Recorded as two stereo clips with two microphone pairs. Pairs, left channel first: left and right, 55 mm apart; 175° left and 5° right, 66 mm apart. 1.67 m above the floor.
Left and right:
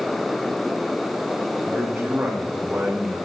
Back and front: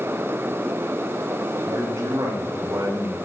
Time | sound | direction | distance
1.6 | a man speaking | 40° right | 2.5 m